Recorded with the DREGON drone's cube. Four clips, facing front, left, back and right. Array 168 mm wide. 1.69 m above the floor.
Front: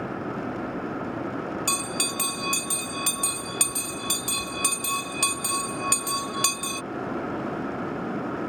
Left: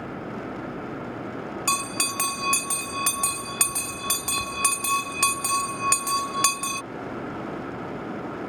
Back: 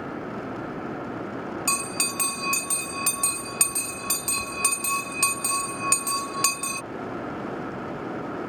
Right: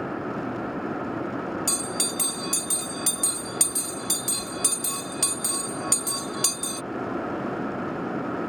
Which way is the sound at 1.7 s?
100° left.